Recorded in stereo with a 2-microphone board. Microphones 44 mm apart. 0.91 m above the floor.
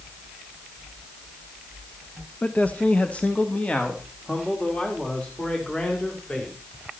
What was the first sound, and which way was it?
A man speaking, 35° left (ahead or behind).